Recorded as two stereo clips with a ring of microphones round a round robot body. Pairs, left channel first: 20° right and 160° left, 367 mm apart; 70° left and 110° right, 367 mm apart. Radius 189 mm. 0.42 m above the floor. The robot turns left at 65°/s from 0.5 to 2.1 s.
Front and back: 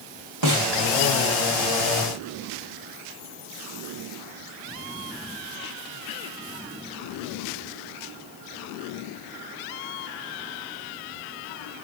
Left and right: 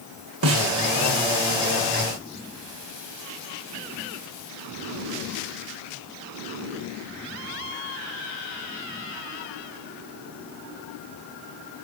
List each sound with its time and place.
0.4 s a snare drum: 165° right, 2.5 m; by 0.7 s 175° right, 2.5 m